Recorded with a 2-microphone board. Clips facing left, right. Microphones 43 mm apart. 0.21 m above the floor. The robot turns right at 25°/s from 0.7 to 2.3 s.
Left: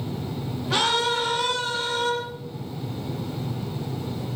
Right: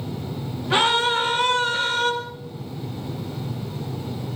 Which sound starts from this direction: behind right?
A scream, at 0.7 s.